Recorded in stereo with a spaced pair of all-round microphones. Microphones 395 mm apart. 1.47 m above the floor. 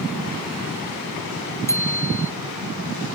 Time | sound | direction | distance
1.7 | a bicycle bell | 5° left (ahead or behind) | ?